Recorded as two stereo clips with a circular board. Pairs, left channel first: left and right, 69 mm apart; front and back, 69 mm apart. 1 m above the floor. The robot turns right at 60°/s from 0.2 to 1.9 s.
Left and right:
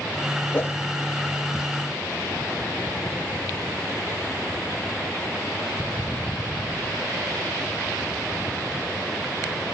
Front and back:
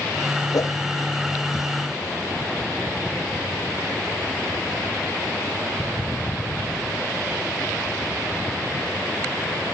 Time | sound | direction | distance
0.5 | a whoosh | 25° left | 0.6 m